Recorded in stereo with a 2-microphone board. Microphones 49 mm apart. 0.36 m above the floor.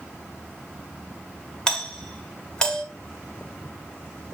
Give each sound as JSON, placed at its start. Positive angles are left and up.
{"t": 1.7, "sound": "a doorbell", "side_deg": 15, "distance_m": 1.5}